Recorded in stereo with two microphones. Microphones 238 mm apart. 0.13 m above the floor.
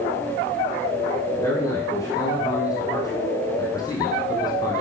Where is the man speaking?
15° left (ahead or behind), 6 m.